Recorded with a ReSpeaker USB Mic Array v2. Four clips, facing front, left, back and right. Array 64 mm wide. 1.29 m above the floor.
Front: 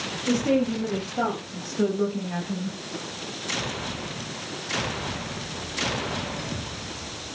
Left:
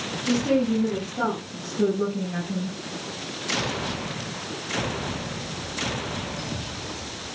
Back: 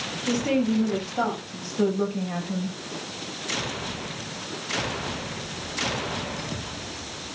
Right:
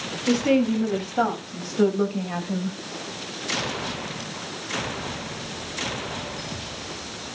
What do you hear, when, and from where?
0.3 s a woman speaking: 105° right, 8.5 m